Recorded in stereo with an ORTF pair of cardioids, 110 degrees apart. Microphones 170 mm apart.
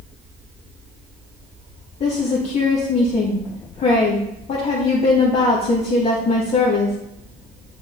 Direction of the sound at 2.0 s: 45° left.